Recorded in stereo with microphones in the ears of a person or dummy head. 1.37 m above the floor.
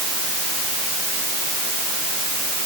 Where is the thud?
No thud in this recording.